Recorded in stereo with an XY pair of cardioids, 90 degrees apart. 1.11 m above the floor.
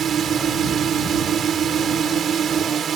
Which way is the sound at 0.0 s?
60° right.